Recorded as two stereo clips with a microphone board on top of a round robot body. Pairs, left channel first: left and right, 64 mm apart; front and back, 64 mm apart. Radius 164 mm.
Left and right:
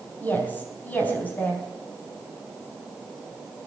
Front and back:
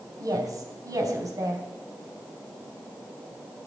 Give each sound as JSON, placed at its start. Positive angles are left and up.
{"t": 0.2, "sound": "a woman speaking", "azimuth_deg": 150, "distance_m": 4.0}